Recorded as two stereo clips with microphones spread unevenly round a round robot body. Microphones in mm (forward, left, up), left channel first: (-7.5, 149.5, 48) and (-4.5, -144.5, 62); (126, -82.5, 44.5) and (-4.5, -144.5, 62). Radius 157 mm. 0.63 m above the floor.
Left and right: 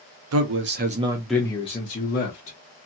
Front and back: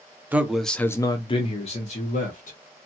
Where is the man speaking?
70° right, 0.8 m; by 2.6 s 45° left, 1.2 m.